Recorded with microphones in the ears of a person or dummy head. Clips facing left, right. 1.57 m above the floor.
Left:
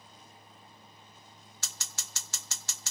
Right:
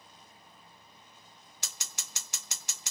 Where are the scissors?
15° right (ahead or behind), 0.7 m.